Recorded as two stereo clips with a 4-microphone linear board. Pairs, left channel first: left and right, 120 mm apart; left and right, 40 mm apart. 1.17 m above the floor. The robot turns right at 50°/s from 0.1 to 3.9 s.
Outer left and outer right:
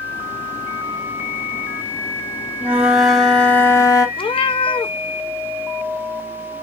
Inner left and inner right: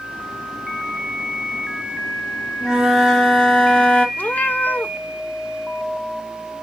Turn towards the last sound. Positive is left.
turn(degrees=45)  # may be behind; listen again after turning